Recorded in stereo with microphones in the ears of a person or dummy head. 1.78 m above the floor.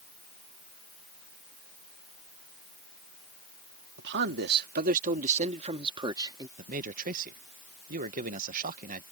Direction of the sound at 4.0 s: 65° right (ahead or behind).